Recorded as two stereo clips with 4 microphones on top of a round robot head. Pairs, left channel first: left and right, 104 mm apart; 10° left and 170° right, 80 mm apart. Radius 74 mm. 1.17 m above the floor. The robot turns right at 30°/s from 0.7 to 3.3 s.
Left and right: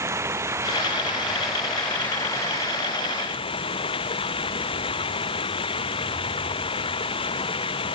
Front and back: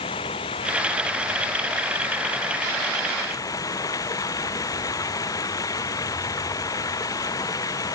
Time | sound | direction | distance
0.0 | running water | 25° right | ?